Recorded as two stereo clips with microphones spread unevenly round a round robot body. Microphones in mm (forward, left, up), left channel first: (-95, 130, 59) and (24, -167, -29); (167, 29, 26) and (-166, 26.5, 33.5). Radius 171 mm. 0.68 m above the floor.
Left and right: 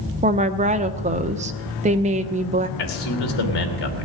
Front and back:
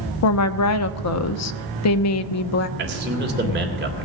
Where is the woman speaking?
20° right, 0.8 m.